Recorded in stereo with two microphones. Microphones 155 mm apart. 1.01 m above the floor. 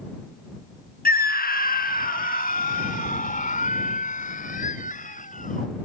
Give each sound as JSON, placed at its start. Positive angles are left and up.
{"t": 1.1, "sound": "a scream", "side_deg": 70}